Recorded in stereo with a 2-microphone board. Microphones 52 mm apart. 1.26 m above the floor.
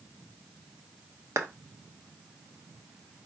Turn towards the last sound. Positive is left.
turn(degrees=-80)